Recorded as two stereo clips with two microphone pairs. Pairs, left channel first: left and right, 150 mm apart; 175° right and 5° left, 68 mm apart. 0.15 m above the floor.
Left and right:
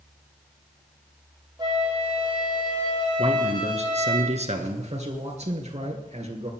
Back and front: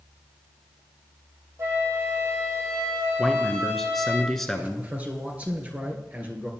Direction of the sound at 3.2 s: 90° right.